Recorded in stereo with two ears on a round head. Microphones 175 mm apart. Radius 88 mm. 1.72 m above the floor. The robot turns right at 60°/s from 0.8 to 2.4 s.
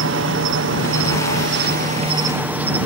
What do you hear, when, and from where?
0.0 s an insect: 105° right; by 2.9 s 10° right